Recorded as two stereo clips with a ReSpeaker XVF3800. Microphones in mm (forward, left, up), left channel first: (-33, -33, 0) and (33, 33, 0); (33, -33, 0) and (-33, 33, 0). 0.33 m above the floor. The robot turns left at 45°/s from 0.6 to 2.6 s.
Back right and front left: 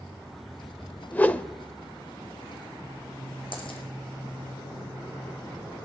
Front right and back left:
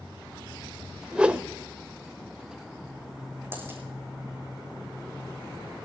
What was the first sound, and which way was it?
A whoosh, 165° right.